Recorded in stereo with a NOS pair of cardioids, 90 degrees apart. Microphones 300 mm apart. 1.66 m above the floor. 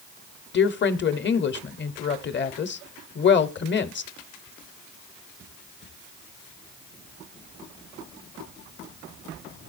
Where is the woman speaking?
35° left, 1.0 m.